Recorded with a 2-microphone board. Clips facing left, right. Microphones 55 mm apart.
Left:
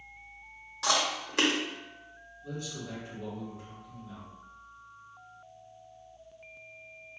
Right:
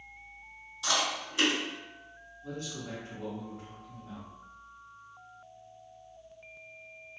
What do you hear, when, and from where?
0.8 s chewing: 75° left (ahead or behind), 0.9 m
2.4 s a man speaking: 45° right (ahead or behind), 1.9 m